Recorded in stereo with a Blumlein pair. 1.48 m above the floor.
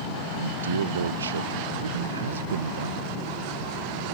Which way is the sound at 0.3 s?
70° right.